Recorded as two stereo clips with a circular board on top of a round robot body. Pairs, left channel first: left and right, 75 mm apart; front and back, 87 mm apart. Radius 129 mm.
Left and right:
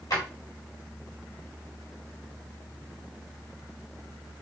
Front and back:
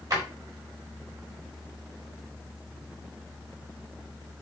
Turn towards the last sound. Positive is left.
turn(degrees=130)